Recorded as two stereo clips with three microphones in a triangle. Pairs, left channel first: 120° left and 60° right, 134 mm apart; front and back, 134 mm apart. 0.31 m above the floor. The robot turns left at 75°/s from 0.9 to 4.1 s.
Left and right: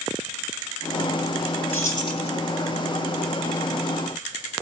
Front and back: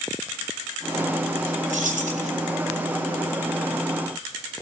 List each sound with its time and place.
1.7 s keys jangling: 165° right, 2.5 m; by 2.3 s 155° left, 2.5 m